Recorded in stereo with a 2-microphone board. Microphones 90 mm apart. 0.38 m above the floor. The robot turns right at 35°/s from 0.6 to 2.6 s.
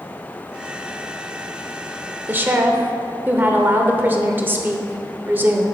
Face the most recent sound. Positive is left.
turn(degrees=-25)  # may be behind; listen again after turning